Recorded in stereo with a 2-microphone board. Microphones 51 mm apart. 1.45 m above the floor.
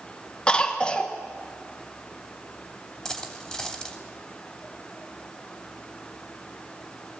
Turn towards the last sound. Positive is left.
turn(degrees=10)  # may be behind; listen again after turning